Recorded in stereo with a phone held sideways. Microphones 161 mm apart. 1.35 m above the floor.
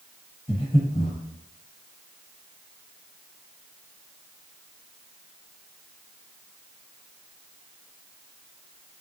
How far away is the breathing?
About 1.4 m.